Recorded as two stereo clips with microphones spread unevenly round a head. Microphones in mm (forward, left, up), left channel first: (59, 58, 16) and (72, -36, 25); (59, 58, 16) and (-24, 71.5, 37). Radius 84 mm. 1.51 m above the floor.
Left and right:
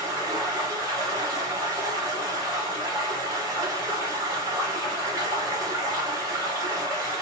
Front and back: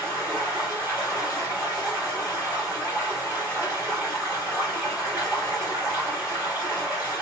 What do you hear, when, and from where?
0.0 s running water: 130° right, 1.4 m